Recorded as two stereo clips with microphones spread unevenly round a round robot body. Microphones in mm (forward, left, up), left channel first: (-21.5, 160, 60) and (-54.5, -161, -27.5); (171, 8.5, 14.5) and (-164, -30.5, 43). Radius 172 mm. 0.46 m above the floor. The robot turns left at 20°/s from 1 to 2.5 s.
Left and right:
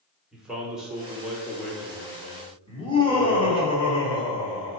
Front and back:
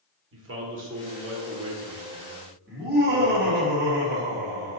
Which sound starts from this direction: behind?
Laughter, at 2.7 s.